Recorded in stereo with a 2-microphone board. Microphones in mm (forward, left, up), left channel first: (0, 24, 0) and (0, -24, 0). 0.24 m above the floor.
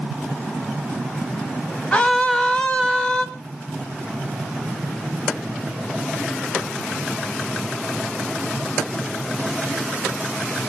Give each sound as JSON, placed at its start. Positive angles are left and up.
{"t": 1.9, "sound": "a scream", "side_deg": 30, "distance_m": 1.4}